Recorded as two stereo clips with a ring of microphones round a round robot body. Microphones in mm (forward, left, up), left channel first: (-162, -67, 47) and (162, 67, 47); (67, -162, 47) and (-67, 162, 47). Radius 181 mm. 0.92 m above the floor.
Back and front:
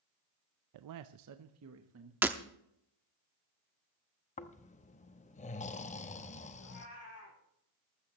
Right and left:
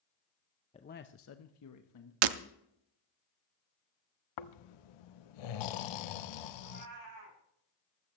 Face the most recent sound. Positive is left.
turn(degrees=150)